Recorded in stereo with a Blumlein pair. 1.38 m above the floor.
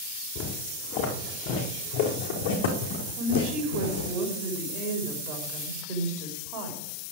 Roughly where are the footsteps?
Ahead left.